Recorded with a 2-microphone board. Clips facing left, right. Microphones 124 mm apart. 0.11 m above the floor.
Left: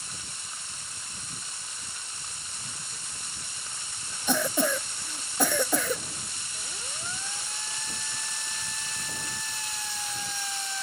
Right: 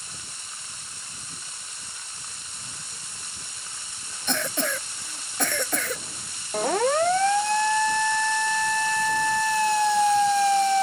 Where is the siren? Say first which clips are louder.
Right 25 dB; 75° right (ahead or behind); by 10.8 s 65° right (ahead or behind).